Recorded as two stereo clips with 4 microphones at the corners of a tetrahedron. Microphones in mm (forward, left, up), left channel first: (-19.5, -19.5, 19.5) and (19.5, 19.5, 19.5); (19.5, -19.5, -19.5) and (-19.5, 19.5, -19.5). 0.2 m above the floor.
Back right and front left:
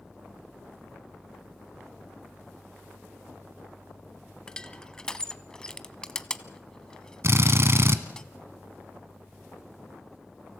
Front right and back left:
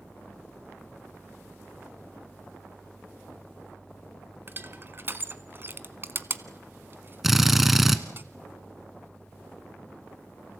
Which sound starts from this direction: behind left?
Crushing, at 4.5 s.